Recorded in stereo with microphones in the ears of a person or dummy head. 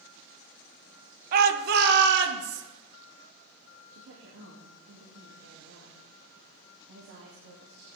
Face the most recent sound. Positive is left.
turn(degrees=-70)  # may be behind; listen again after turning